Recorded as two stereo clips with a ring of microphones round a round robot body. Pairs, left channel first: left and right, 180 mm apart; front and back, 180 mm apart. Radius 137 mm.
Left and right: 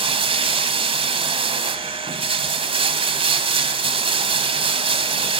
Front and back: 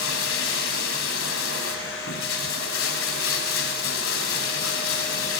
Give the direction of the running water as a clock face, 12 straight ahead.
1 o'clock.